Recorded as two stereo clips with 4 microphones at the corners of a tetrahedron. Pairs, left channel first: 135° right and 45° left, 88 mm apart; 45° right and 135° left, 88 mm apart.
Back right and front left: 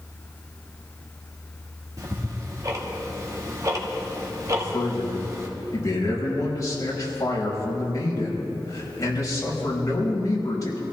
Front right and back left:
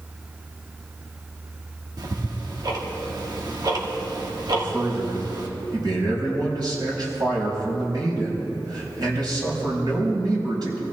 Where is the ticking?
95° left, 1.7 m.